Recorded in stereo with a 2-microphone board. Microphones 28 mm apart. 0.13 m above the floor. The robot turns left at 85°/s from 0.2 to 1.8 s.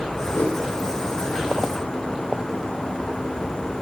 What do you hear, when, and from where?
0.3 s a whoosh: 80° left, 2.5 m; by 0.6 s 70° left (ahead or behind), 2.5 m